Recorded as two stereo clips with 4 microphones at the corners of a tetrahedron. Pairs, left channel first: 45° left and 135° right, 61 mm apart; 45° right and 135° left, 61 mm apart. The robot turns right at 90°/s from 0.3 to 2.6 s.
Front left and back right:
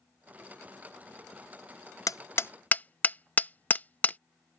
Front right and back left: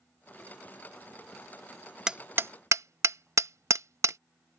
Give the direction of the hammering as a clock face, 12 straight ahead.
10 o'clock.